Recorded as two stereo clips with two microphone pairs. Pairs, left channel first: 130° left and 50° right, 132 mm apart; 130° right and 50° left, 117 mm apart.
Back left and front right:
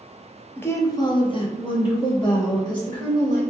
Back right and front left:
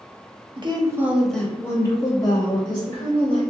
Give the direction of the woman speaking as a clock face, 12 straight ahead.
10 o'clock.